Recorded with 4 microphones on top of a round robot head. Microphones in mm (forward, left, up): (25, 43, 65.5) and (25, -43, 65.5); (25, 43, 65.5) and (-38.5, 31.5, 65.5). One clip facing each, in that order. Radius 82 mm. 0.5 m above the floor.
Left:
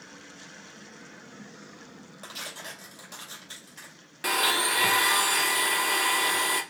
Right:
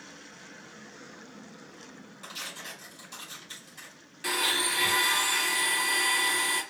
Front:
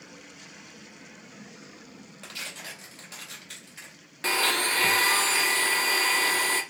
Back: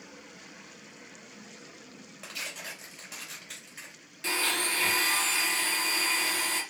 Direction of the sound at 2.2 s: 110° left.